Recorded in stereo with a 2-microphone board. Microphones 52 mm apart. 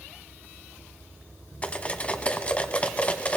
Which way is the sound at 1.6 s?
25° left (ahead or behind).